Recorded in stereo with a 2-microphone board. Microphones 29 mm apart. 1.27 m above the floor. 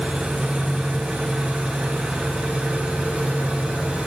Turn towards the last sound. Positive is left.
turn(degrees=-45)  # may be behind; listen again after turning